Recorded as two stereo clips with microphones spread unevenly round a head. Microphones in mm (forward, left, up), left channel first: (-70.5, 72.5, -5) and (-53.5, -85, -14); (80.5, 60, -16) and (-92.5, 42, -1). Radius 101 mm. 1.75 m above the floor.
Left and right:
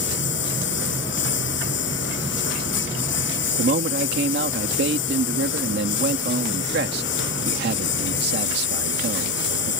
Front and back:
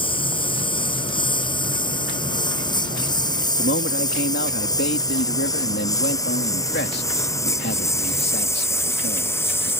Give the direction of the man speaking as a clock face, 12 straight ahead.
1 o'clock.